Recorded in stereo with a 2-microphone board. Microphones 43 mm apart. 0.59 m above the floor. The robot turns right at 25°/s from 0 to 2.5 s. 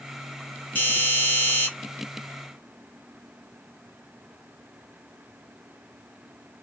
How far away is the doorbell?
About 1.5 m.